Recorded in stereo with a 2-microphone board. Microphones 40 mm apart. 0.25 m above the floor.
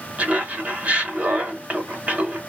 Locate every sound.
0.2 s laughter: 35° right (ahead or behind), 1.9 m